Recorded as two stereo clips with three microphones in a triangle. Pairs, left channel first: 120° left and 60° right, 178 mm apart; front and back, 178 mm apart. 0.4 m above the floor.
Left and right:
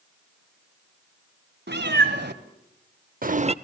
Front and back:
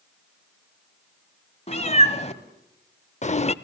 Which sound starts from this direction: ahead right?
A cat meowing, at 1.7 s.